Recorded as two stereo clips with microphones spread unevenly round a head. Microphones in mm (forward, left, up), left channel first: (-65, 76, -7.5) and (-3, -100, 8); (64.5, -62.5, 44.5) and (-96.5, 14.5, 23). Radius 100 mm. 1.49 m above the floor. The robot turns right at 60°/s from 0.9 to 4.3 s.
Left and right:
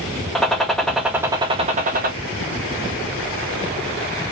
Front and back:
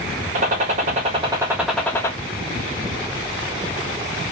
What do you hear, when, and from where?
0.3 s a gunshot: 160° right, 1.1 m; by 2.1 s 85° right, 1.1 m